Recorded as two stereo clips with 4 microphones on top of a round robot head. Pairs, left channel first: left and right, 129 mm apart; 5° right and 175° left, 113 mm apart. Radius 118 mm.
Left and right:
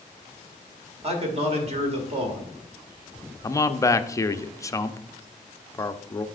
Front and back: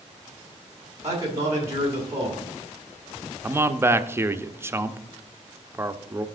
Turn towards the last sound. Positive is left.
turn(degrees=130)